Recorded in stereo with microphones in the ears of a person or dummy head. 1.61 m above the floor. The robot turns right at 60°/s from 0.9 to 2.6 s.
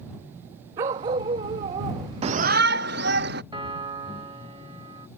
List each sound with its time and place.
0.8 s a dog barking: 20° right (ahead or behind)
2.2 s a shout: 35° right (ahead or behind); by 3.4 s 60° right (ahead or behind)
3.5 s a piano: 35° right (ahead or behind)